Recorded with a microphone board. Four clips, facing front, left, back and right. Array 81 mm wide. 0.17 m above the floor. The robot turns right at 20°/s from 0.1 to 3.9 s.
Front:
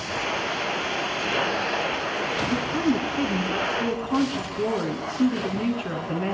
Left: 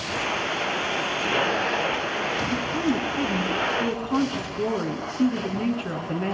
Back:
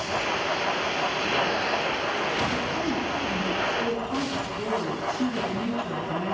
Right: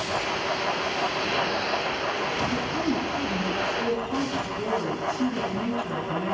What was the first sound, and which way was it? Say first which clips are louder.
A woman speaking: left 2 dB, front 4 dB; 20° left.